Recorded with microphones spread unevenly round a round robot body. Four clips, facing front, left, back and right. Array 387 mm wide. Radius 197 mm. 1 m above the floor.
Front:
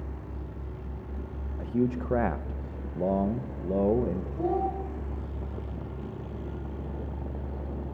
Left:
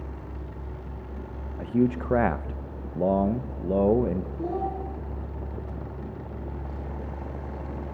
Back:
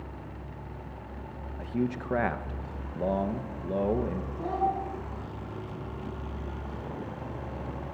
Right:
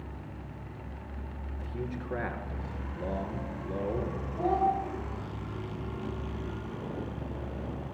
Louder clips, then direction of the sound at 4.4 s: Right 7 dB, even; 25° right.